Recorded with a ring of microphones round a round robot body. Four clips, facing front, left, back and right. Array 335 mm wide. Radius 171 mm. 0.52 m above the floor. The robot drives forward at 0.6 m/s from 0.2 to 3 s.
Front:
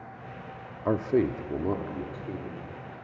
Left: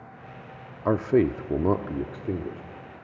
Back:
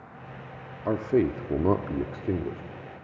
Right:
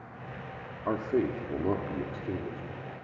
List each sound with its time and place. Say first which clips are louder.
0.8 s a man speaking: left 7 dB, back 1 dB; 80° left, 0.9 m; by 2.6 s 155° left, 1.3 m